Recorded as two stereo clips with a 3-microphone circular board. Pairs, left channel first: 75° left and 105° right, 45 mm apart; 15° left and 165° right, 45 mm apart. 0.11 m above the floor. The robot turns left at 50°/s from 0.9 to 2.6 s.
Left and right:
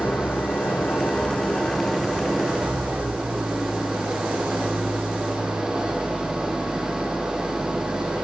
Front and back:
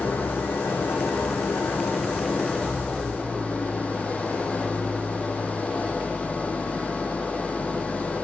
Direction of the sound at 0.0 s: 45° left.